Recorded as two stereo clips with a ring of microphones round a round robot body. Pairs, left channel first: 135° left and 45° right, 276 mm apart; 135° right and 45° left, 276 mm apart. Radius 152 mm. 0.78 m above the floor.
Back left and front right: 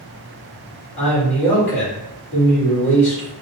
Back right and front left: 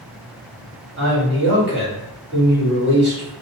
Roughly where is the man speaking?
Left.